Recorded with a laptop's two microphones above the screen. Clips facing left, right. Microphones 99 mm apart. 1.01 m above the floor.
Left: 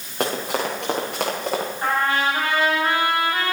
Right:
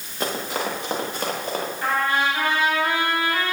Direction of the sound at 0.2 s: 60° left (ahead or behind).